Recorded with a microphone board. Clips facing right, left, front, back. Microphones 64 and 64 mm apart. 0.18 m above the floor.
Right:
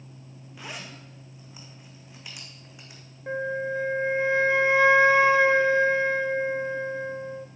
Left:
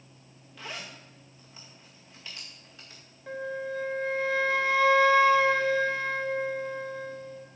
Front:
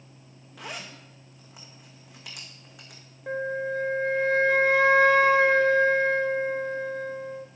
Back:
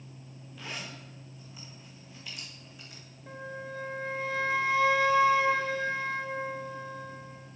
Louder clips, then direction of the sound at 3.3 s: Right 5 dB, front 11 dB; 30° right.